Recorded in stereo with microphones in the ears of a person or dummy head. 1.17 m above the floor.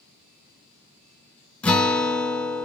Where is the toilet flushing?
I don't hear a toilet flushing.